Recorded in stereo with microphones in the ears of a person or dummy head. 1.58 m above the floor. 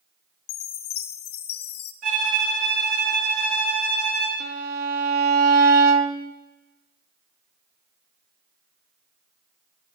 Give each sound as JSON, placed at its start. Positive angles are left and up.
{"t": 0.5, "sound": "a chime", "side_deg": 85, "distance_m": 0.8}
{"t": 2.0, "sound": "a violin", "side_deg": -50, "distance_m": 4.0}
{"t": 4.4, "sound": "a violin", "side_deg": -55, "distance_m": 0.8}